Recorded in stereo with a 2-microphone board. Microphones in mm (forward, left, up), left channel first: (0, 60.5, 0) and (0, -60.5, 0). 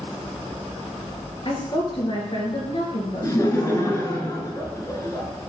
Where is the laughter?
25° left (ahead or behind), 1.3 m.